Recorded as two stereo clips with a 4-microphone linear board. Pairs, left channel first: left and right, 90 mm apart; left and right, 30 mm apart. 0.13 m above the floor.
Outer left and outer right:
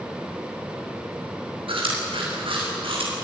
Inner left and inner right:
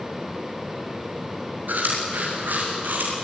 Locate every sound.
1.7 s chewing: 90° right, 9.5 m